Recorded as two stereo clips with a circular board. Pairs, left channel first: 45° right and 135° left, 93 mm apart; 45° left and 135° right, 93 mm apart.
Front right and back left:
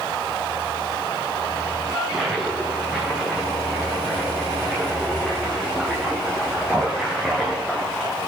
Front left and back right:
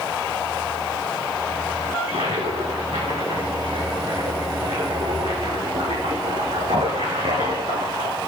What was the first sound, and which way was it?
A toilet flushing, 140° right.